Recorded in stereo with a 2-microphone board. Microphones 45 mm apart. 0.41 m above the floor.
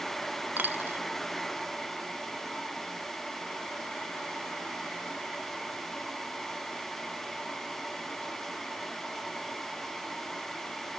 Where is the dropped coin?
45° right (ahead or behind).